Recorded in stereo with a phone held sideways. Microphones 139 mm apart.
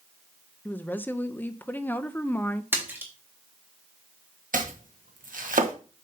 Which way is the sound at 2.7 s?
15° right (ahead or behind).